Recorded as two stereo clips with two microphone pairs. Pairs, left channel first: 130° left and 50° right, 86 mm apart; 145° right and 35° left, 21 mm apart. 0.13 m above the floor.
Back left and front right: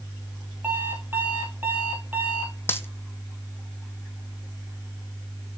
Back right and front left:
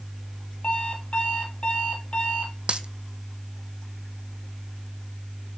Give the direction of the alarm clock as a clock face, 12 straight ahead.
4 o'clock.